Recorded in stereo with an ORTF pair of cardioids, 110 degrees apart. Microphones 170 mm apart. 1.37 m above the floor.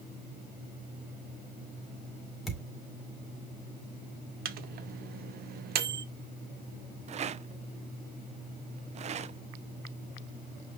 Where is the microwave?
65° right, 1.1 m.